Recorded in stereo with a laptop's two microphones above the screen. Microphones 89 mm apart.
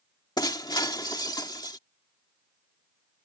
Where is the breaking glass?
50° left (ahead or behind).